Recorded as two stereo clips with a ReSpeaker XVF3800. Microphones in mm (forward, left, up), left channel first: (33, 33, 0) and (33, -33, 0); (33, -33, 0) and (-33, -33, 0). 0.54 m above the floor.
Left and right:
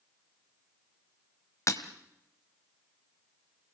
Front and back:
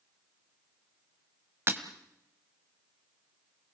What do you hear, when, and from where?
1.7 s breaking glass: 130° left, 1.5 m